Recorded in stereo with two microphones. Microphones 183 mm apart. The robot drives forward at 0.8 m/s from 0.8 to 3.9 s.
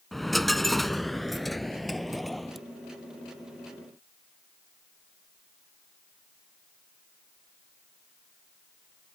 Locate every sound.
0.1 s a dropped coin: centre (ahead or behind)